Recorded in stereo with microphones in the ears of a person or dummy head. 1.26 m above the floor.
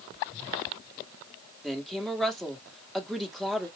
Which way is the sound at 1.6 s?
Centre (ahead or behind).